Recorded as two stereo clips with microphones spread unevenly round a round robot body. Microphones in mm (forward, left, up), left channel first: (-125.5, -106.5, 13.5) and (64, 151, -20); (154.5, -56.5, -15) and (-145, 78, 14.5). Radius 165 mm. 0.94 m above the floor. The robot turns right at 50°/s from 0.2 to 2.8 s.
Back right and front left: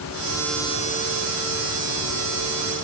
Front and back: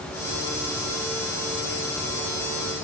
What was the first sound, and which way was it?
Only background noise.